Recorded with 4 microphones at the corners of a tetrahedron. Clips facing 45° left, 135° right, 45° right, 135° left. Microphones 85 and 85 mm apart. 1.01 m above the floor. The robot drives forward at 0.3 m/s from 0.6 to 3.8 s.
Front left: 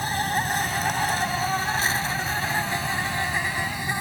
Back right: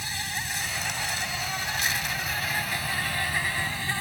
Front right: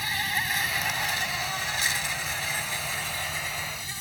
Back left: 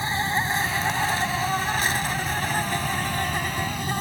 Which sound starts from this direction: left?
An insect, at 0.0 s.